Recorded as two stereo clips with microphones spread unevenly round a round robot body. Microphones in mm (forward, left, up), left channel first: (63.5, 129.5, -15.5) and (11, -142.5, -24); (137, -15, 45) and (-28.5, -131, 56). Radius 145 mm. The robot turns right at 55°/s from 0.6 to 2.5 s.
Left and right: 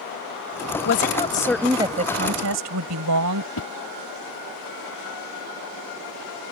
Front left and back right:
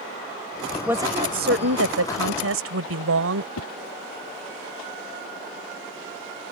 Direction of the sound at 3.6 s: 40° left.